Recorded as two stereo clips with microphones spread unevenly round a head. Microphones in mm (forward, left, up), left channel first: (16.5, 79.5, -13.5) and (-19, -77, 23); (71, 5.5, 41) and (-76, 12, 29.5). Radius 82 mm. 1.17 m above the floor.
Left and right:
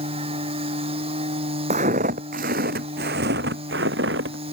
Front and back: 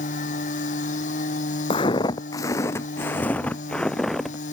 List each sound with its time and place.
0.0 s a machine running: 45° right
1.7 s footsteps: 60° right; by 4.3 s 90° right